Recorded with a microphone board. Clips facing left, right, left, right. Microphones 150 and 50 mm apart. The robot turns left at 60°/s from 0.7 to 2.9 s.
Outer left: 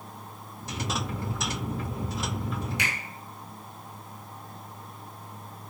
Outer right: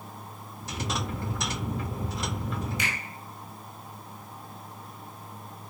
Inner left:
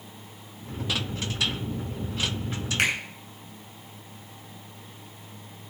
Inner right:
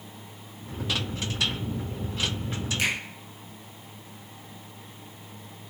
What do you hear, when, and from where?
2.8 s a finger snap: 65° left (ahead or behind), 7 m; by 2.9 s 60° left (ahead or behind), 7 m